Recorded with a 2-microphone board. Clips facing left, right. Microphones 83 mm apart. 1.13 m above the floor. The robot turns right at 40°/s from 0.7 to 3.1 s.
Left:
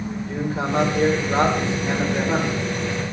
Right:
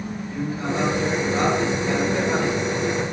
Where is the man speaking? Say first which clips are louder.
Left 2 dB; 105° left, 3.5 m; by 2.6 s 175° right, 3.5 m.